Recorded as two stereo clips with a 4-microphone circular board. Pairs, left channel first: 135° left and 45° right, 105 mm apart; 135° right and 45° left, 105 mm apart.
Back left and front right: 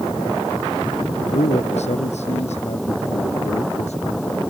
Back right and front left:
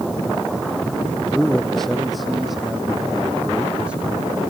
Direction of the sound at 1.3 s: 140° left.